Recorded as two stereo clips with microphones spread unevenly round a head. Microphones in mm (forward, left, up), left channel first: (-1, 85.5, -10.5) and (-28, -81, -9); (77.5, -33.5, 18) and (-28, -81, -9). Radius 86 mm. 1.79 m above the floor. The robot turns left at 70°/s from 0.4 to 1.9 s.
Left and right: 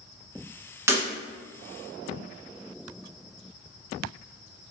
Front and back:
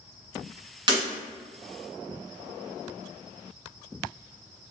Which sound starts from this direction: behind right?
Breaking glass, at 0.9 s.